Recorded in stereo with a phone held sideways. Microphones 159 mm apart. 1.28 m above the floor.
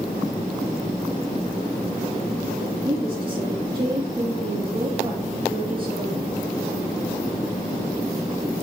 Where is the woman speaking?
35° right (ahead or behind), 2.5 m.